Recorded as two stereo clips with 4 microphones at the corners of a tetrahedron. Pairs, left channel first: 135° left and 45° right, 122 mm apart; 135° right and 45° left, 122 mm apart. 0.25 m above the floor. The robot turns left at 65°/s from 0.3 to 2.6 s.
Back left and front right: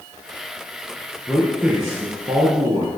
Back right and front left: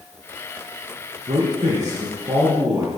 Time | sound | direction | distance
1.3 | a man speaking | 60° left | 3 m